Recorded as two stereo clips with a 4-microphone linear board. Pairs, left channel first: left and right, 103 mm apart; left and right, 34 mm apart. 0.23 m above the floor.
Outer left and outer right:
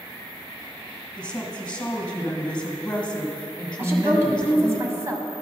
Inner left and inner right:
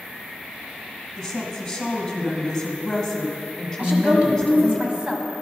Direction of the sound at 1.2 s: 10° left (ahead or behind).